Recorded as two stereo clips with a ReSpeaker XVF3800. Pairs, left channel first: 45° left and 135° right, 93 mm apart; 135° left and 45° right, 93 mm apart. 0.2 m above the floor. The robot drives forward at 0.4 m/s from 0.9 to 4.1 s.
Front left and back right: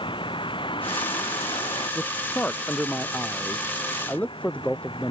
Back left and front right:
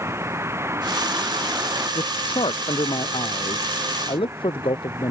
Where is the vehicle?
15° left; by 5.1 s 20° left.